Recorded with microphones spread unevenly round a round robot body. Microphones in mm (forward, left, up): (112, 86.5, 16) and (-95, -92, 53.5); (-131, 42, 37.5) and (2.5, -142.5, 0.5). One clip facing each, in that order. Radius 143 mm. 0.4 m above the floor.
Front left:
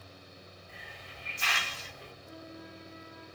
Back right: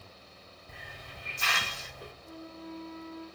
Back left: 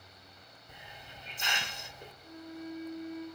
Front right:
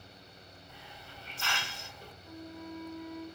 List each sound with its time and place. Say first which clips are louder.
0.7 s a hiss: back right 1 dB, back left 1 dB; 160° right, 1.1 m
2.2 s a flute: back right 4 dB, back left 2 dB; 55° left, 4.5 m